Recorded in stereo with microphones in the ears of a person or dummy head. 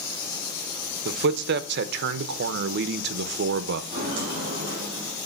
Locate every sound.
1.1 s a man speaking: 65° right (ahead or behind), 0.9 m
3.9 s footsteps: 35° right (ahead or behind), 3 m; by 5.2 s 25° right (ahead or behind), 4 m